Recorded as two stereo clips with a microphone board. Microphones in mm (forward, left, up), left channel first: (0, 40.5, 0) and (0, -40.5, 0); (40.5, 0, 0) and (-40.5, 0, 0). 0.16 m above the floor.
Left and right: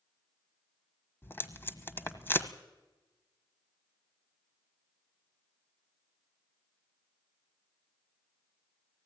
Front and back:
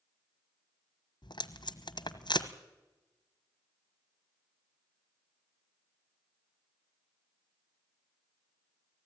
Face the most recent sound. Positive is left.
turn(degrees=25)